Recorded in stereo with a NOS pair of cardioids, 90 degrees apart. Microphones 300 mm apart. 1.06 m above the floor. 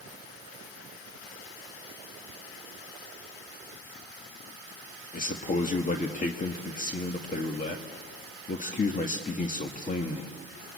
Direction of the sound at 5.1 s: 25° left.